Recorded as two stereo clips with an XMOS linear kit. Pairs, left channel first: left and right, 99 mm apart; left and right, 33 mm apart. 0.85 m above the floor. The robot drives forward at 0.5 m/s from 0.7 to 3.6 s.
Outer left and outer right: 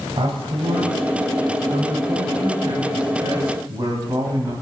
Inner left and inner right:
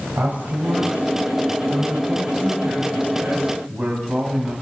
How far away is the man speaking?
About 4 m.